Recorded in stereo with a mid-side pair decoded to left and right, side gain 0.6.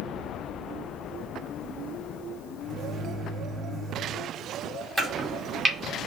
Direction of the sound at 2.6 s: 30° right.